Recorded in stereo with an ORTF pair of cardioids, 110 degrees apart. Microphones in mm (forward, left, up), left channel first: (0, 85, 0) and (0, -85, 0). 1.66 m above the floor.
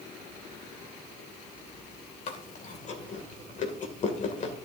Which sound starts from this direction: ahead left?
Chewing, at 2.3 s.